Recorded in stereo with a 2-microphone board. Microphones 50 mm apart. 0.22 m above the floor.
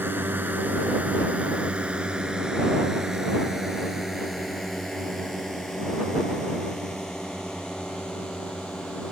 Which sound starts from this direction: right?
A drone, at 0.0 s.